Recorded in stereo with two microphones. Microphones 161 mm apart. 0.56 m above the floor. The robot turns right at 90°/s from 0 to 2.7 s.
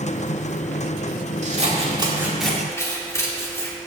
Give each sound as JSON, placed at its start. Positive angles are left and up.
{"t": 1.4, "sound": "scissors", "azimuth_deg": -90, "distance_m": 1.5}